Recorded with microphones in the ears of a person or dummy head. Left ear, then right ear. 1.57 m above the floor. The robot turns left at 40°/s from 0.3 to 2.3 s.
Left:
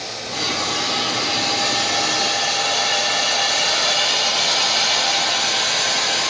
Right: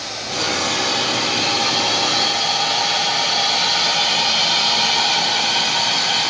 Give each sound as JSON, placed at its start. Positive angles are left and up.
{"t": 0.3, "sound": "a hiss", "azimuth_deg": -140, "distance_m": 9.5}